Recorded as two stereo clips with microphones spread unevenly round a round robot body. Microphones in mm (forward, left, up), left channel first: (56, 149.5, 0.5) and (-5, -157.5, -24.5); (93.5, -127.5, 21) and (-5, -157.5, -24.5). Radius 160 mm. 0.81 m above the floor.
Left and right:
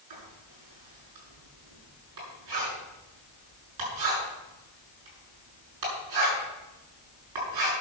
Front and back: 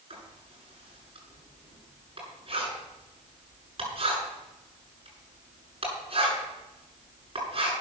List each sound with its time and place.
0.1 s writing: 135° right, 8 m